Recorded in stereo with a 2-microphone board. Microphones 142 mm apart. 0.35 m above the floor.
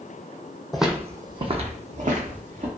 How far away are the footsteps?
About 0.5 m.